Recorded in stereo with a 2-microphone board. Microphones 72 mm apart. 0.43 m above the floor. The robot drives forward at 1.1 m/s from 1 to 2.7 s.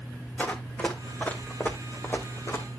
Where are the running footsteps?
20° left (ahead or behind), 1.3 m; by 2.8 s 40° left (ahead or behind), 1.5 m.